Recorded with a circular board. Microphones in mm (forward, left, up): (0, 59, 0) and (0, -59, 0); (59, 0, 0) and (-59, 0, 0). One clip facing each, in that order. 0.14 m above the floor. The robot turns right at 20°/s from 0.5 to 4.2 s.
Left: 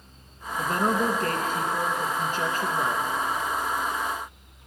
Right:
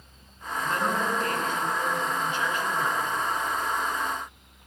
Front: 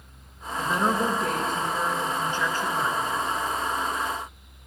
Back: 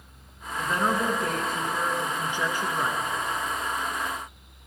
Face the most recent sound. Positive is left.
turn(degrees=145)